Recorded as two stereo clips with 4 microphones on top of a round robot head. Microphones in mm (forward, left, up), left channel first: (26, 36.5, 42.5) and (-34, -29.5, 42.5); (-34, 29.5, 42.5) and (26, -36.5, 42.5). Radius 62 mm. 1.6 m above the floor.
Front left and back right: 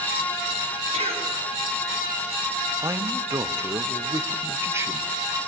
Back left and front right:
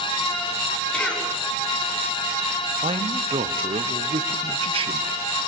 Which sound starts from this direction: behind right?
A cough, at 0.9 s.